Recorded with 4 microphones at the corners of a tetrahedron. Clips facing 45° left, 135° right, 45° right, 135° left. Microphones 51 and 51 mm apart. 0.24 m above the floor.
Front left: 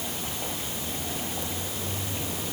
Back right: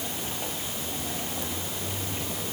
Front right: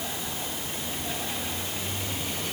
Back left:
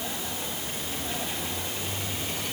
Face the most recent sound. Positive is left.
No sound to turn to.